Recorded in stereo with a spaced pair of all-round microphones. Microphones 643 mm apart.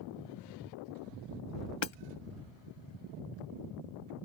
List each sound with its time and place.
1.8 s hammering: 45° left (ahead or behind)